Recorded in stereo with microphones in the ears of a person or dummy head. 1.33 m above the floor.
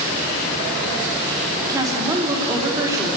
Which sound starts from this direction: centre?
A woman speaking, at 1.6 s.